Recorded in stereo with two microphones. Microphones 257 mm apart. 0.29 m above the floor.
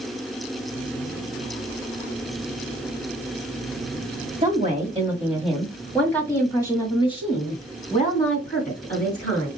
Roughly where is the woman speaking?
Right.